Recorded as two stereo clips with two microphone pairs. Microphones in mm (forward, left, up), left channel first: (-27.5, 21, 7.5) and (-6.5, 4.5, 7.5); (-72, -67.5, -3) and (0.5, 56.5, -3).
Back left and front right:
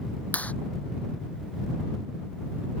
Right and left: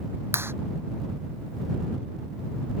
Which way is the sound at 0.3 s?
135° left.